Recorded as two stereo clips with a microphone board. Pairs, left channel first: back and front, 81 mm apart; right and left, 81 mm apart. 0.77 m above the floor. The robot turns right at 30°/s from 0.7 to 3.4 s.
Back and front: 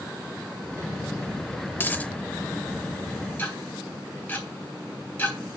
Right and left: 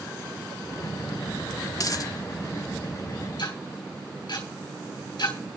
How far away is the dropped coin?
About 0.7 m.